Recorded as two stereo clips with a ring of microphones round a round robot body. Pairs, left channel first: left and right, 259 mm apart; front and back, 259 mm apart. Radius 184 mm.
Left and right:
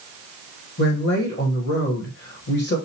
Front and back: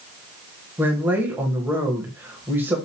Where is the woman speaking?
100° left, 1.5 m.